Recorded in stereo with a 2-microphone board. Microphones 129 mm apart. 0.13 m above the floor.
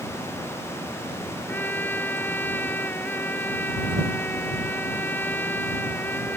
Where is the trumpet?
15° left (ahead or behind).